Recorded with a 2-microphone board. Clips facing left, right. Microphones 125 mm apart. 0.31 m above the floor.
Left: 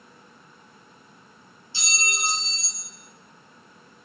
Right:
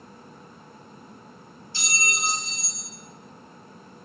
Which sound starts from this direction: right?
A clink, at 1.7 s.